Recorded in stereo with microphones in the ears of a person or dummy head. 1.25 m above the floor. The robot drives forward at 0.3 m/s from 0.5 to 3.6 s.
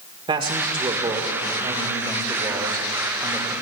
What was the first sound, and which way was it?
A man speaking, 25° right (ahead or behind).